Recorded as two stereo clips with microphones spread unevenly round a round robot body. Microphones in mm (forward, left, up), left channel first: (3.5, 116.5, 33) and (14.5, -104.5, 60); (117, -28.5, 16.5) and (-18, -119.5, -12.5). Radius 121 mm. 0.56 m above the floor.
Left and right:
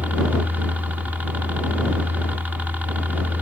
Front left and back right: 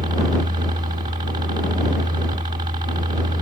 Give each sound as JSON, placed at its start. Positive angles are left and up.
{"t": 0.0, "sound": "a helicopter", "azimuth_deg": -175}